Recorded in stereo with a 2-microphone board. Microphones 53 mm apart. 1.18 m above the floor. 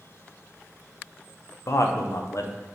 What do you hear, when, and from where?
1.7 s a man speaking: 65° left (ahead or behind), 0.6 m